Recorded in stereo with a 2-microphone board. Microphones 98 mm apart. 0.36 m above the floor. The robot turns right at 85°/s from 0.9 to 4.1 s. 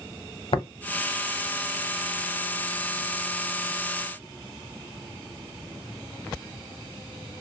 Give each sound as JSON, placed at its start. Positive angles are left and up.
{"t": 0.5, "sound": "tapping", "side_deg": 60, "distance_m": 0.8}